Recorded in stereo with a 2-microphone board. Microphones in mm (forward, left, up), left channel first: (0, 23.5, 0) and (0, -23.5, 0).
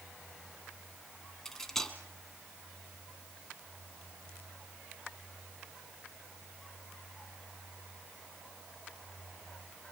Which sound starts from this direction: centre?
Cutlery clinking, at 1.4 s.